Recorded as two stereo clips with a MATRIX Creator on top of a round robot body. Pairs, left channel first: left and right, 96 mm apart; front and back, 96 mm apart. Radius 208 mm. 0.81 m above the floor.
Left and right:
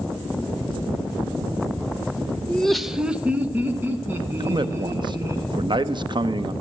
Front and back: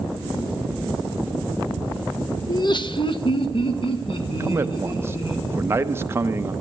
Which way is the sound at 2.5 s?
20° left.